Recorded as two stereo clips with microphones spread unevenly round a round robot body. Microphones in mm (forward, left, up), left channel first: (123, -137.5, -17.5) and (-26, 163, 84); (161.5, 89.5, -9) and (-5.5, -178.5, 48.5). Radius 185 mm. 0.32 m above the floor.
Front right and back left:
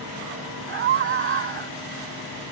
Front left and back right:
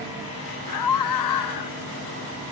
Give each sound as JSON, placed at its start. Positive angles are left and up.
{"t": 0.7, "sound": "a scream", "azimuth_deg": 60}